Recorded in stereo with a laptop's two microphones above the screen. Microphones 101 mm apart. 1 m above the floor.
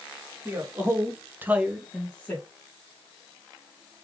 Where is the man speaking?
25° right (ahead or behind), 2 m; by 2.5 s 10° left (ahead or behind), 1.5 m.